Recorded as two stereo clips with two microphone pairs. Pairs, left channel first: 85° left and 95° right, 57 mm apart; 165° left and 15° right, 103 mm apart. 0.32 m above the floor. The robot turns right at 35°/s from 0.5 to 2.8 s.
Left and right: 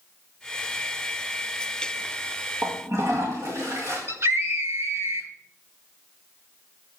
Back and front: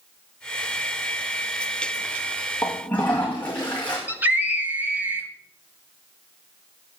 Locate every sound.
2.6 s a toilet flushing: 125° right, 5 m; by 4.0 s 120° right, 5 m
4.1 s a scream: 85° right, 2.5 m